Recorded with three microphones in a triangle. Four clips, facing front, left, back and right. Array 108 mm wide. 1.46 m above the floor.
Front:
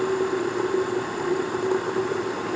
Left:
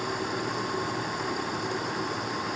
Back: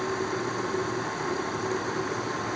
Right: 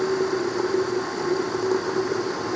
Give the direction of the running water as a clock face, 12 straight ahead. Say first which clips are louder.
Right 8 dB, front 6 dB; 2 o'clock.